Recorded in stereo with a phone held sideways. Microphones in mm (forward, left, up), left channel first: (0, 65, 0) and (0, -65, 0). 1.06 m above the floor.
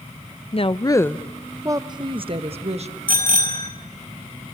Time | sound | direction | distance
0.5 | a woman speaking | 50° left (ahead or behind) | 0.8 m
3.1 | a bicycle bell | 85° right | 5 m